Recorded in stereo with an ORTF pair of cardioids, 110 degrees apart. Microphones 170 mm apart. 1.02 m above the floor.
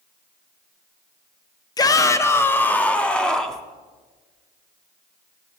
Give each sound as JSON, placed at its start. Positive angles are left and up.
{"t": 1.8, "sound": "a shout", "azimuth_deg": 25, "distance_m": 1.2}